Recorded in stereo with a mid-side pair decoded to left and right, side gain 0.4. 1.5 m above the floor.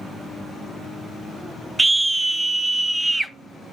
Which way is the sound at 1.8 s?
20° right.